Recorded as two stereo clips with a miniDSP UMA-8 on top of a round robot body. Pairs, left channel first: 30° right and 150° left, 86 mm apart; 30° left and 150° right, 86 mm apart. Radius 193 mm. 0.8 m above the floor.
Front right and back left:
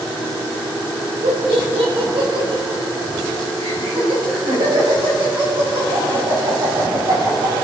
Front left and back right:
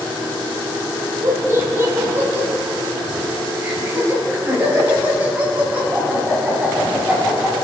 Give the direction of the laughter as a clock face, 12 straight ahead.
7 o'clock.